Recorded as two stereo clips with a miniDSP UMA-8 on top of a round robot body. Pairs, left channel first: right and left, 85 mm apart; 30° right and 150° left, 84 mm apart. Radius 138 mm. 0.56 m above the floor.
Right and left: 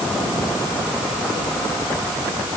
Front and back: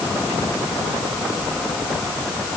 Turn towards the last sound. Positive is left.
No sound to turn to.